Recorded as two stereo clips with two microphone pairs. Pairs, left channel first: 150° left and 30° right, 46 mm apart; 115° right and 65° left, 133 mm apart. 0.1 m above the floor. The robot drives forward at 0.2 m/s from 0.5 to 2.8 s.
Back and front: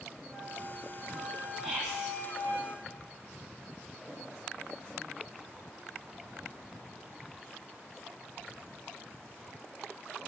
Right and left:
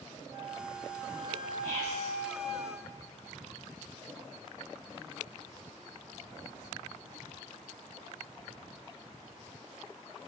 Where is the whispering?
100° right, 1.3 m; by 2.1 s 115° right, 1.3 m.